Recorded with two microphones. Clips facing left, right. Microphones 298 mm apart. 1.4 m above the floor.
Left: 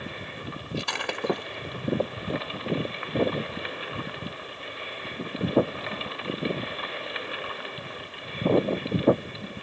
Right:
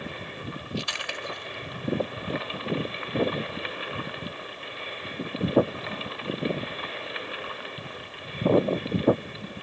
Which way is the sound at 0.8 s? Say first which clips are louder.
Left 5 dB; 70° left (ahead or behind).